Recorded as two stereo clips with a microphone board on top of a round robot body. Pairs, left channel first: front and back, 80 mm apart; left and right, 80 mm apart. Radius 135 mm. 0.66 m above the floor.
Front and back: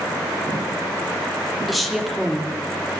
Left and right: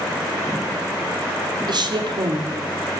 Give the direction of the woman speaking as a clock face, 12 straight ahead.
3 o'clock.